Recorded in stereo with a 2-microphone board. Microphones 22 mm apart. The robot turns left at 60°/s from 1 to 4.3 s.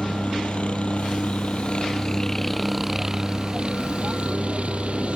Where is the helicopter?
105° left; by 5.2 s 95° right.